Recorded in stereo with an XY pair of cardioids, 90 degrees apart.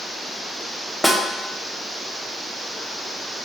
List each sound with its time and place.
1.0 s a snare drum: 5° left, 0.6 m